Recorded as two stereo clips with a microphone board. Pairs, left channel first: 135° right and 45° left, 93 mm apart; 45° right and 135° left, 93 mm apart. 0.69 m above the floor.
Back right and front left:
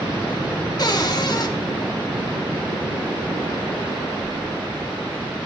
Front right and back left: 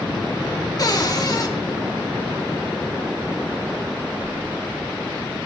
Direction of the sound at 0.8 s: 90° right.